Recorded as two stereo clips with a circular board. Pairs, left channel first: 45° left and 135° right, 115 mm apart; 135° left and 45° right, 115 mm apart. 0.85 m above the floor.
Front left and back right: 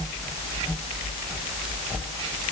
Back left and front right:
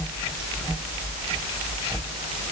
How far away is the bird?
No bird in this recording.